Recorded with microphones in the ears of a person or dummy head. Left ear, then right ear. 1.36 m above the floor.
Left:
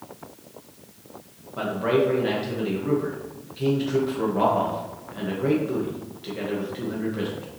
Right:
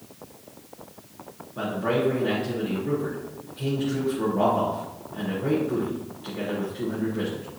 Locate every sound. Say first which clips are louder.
1.6 s a man speaking: left 3 dB; 30° left (ahead or behind), 1.5 m